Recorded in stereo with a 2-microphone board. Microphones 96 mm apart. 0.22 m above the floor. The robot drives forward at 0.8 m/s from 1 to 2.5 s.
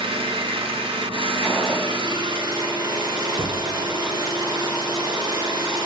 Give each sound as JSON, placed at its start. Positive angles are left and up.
{"t": 0.0, "sound": "an engine running", "side_deg": -60, "distance_m": 1.2}
{"t": 1.4, "sound": "a gunshot", "side_deg": 0, "distance_m": 1.8}
{"t": 3.4, "sound": "a thud", "side_deg": -80, "distance_m": 1.3}